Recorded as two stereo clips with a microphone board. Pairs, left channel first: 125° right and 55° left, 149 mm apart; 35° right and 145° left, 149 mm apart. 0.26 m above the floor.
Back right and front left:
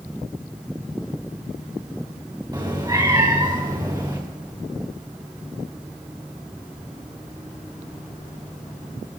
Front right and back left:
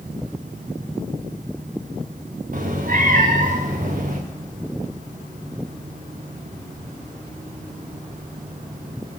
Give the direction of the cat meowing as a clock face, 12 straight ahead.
8 o'clock.